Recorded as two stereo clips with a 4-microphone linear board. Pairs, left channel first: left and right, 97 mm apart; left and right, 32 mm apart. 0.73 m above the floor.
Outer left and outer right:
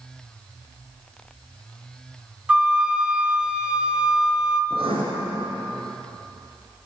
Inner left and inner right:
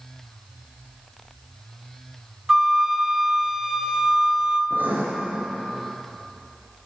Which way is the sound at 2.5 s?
10° right (ahead or behind).